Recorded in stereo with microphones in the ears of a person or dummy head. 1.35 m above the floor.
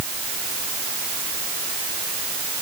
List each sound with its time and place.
Only background noise.